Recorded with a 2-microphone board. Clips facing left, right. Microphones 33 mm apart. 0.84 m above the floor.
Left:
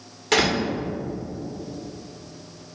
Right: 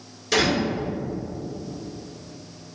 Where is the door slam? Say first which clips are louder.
Left 1 dB; 55° left (ahead or behind), 2.5 m.